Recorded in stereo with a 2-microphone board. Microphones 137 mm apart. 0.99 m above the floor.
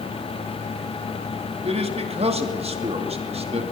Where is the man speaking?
50° right (ahead or behind), 2 m.